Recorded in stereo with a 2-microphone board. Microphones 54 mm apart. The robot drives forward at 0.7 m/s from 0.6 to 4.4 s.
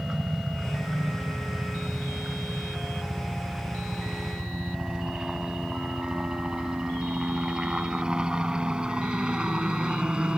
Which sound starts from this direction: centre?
A helicopter, at 0.0 s.